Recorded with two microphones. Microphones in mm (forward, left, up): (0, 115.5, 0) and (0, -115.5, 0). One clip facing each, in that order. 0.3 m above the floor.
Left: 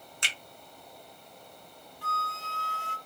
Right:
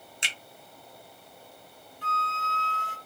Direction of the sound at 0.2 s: 20° right (ahead or behind).